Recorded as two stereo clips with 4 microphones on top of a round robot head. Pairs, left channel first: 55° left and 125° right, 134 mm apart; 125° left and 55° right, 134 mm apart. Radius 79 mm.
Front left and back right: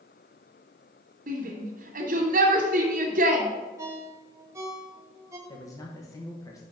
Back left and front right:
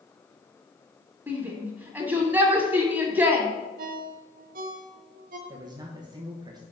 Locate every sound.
1.3 s a shout: 130° right, 1.8 m
3.8 s a ringtone: 55° right, 1.1 m
5.5 s a man speaking: 5° right, 1.1 m